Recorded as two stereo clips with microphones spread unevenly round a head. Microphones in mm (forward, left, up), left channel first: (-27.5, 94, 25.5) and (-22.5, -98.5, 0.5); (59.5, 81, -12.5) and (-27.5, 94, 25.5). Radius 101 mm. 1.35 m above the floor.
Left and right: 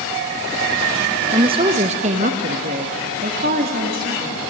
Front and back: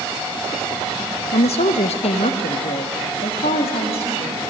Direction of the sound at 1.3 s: 15° right.